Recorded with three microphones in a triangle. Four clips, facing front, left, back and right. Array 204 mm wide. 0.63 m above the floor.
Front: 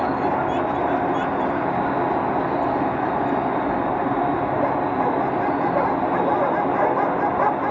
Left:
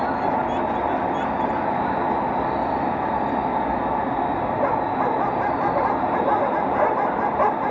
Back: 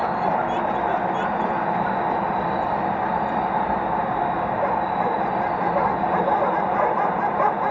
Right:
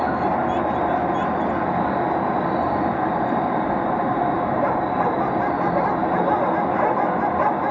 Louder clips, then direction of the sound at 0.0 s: Right 1 dB, front 1 dB; 65° right.